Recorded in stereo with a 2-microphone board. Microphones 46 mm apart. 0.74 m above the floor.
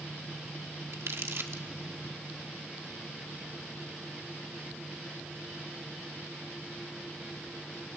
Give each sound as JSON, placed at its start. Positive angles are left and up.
{"t": 0.9, "sound": "crumpling", "side_deg": -65, "distance_m": 1.4}